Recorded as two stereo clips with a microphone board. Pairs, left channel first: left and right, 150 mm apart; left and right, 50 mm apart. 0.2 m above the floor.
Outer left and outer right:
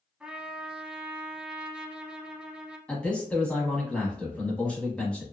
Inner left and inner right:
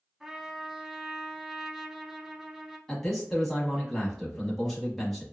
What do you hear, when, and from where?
0.2 s a trumpet: 5° right (ahead or behind), 0.6 m
2.9 s a man speaking: 5° left (ahead or behind), 1.1 m